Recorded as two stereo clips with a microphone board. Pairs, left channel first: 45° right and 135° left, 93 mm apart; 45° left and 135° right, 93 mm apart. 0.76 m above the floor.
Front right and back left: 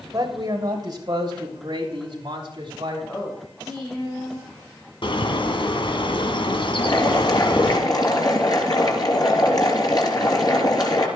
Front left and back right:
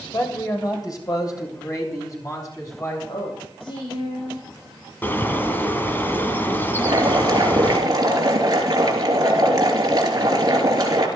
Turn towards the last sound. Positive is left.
turn(degrees=-90)